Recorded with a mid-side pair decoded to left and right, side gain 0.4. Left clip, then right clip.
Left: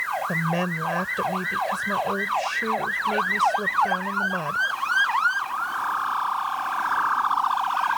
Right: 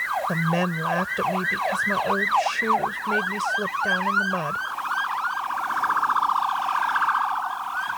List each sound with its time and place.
0.3 s a woman speaking: 20° right